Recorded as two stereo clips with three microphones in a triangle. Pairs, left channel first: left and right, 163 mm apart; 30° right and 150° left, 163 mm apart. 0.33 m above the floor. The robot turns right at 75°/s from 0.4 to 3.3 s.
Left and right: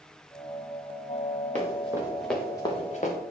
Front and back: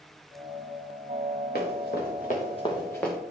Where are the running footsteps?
45° right, 4 m; by 3.2 s 55° left, 2 m.